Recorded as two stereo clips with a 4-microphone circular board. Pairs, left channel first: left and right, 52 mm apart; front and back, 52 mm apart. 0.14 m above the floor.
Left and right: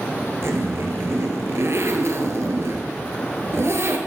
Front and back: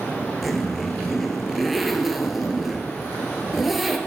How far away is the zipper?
About 1.9 m.